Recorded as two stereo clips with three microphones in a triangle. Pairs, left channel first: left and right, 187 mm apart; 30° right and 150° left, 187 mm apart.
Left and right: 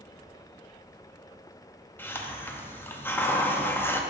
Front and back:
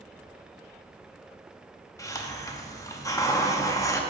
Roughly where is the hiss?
Ahead.